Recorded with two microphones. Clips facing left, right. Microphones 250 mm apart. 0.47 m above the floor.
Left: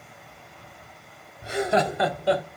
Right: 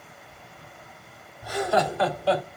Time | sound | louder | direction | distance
1.4 | laughter | left 1 dB | 25° left (ahead or behind) | 0.8 m